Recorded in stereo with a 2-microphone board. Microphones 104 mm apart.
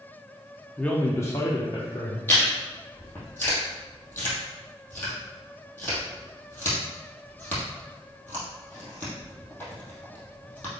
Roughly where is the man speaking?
Centre.